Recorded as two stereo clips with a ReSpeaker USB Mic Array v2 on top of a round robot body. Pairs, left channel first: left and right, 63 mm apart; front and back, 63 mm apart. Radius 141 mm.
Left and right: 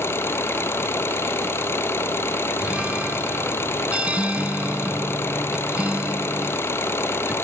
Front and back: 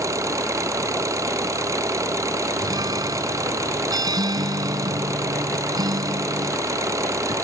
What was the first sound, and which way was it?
An engine running, 140° left.